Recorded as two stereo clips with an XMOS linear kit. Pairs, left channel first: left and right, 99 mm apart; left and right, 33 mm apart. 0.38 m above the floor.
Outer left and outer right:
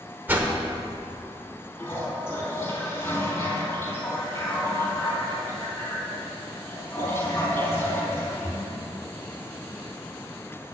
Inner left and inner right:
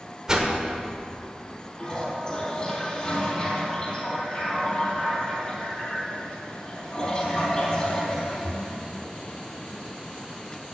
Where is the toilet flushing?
25° left (ahead or behind), 3.5 m.